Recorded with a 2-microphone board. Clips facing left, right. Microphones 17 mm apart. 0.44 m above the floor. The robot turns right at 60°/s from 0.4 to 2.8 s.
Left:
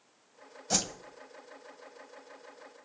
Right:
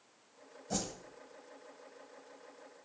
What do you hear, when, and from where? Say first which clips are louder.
0.7 s a whoosh: left 7 dB; 70° left (ahead or behind), 1.0 m; by 0.9 s 60° left (ahead or behind), 1.0 m